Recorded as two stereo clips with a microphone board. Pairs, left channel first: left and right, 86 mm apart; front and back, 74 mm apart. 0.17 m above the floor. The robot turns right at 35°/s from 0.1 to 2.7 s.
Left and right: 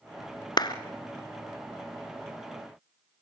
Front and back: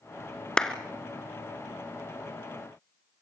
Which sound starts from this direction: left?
A clap, at 0.6 s.